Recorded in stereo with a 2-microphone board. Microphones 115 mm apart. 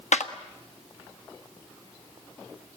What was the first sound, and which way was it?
A clap, 85° left.